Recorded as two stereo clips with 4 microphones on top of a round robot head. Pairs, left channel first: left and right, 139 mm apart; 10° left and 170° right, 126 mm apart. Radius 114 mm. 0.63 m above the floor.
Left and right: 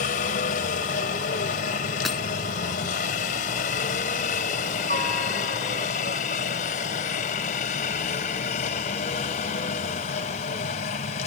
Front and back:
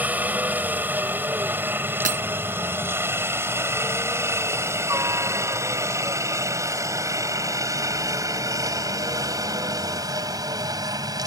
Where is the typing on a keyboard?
I don't hear typing on a keyboard.